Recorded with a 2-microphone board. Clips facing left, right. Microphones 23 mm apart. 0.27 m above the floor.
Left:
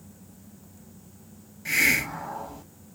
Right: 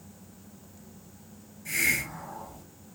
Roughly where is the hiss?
Left.